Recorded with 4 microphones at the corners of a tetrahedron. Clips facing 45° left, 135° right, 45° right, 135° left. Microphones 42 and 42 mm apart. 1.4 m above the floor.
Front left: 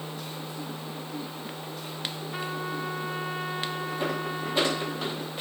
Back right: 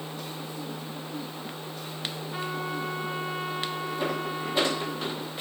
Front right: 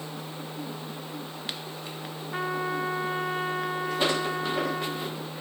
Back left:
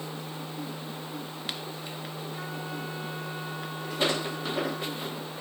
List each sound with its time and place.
2.3 s a trumpet: 35° right, 3 m